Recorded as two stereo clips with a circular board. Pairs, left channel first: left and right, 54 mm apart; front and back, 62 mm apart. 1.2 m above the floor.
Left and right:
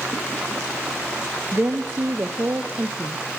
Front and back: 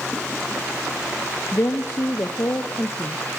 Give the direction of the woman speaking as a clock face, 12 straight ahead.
1 o'clock.